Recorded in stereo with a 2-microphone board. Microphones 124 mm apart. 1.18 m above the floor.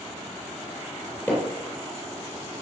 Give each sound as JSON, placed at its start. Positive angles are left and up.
{"t": 1.3, "sound": "hammering", "side_deg": 20, "distance_m": 10.0}